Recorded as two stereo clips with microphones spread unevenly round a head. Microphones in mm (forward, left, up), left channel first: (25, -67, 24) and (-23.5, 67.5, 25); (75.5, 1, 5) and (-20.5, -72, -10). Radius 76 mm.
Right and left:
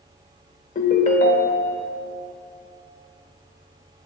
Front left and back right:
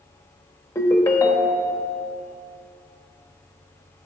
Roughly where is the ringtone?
Ahead right.